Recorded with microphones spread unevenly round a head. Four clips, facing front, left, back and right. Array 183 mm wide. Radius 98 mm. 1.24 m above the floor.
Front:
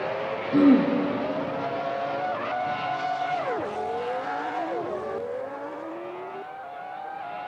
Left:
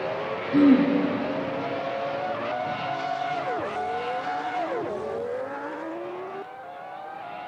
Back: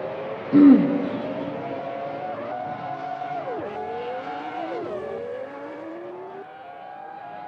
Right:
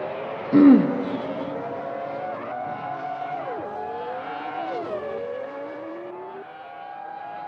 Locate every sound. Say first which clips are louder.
0.5 s throat clearing: right 4 dB, back 5 dB; 160° right, 0.6 m